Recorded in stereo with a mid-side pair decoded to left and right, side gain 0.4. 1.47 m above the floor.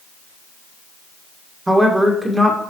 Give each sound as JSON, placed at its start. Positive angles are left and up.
{"t": 1.7, "sound": "a woman speaking", "azimuth_deg": -15, "distance_m": 1.8}